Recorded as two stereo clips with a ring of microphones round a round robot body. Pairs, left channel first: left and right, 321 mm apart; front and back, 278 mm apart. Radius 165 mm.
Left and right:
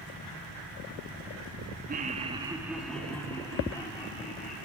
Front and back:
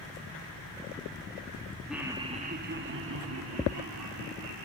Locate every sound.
1.9 s laughter: 95° right, 0.8 m; by 4.7 s 160° left, 2.0 m